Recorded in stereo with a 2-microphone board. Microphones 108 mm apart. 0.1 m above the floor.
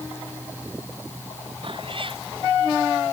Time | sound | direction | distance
1.6 | a cat meowing | 55° right (ahead or behind) | ?